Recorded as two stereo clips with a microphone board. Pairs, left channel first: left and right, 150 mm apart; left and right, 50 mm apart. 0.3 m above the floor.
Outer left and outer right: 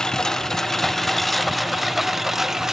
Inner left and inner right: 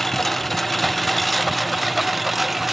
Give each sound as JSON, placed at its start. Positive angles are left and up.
{"t": 0.0, "sound": "a lawn mower", "side_deg": 5}